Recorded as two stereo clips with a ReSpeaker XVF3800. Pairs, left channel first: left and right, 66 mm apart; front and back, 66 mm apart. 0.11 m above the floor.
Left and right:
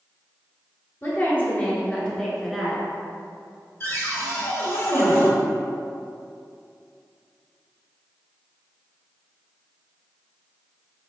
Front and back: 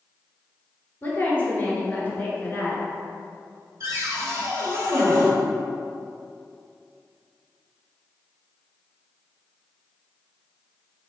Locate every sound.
1.0 s a woman speaking: 50° left, 1.5 m; by 2.8 s 5° right, 1.1 m
3.8 s a cupboard door: 135° left, 1.3 m